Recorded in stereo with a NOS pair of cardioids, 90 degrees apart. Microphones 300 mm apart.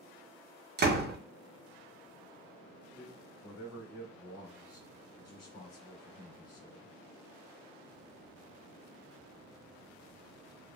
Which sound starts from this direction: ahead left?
A man speaking, at 3.0 s.